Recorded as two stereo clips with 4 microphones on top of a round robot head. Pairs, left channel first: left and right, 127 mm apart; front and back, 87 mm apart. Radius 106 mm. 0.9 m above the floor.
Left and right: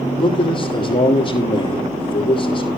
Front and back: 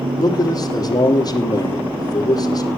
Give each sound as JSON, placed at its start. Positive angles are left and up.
{"t": 0.2, "sound": "a man speaking", "azimuth_deg": 40, "distance_m": 2.5}